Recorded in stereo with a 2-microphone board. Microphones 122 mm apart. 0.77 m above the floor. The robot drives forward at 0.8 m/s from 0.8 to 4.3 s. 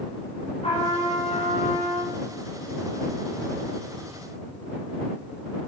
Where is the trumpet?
55° left (ahead or behind), 3 m; by 2.1 s 70° left (ahead or behind), 2.5 m.